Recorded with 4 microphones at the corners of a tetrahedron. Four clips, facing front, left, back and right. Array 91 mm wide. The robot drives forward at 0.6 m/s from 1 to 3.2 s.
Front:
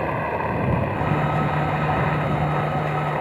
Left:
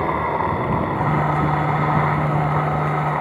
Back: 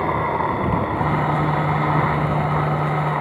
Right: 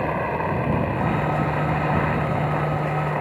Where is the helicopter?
130° left; by 3.2 s 135° left.